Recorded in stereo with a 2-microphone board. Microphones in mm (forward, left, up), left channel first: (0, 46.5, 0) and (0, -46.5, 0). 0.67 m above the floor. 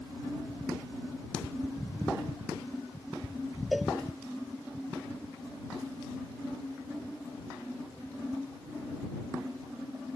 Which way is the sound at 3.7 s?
Centre (ahead or behind).